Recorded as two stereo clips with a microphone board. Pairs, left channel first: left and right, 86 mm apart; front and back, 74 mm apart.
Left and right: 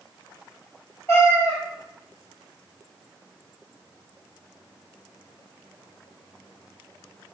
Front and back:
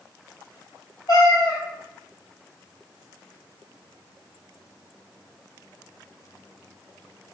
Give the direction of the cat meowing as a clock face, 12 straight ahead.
11 o'clock.